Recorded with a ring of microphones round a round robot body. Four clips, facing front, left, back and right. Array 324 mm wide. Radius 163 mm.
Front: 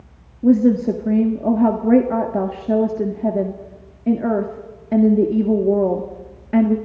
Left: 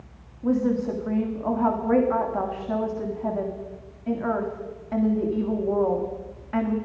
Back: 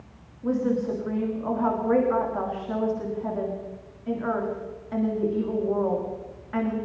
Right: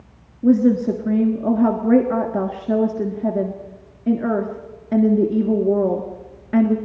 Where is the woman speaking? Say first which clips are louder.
Right 8 dB, front 10 dB; 40° right, 1.8 m.